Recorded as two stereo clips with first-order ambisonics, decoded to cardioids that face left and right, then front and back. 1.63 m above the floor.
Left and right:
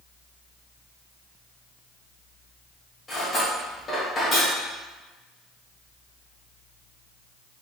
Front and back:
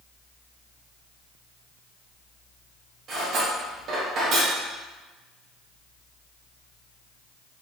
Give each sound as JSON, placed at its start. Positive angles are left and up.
{"t": 3.1, "sound": "cutlery clinking", "azimuth_deg": 160, "distance_m": 1.0}